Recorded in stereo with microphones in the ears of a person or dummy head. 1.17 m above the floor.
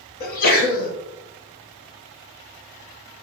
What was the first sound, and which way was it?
A sneeze, 45° left (ahead or behind).